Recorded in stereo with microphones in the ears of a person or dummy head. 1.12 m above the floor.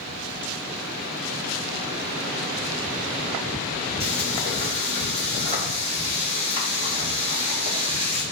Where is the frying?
30° right (ahead or behind), 1.2 m.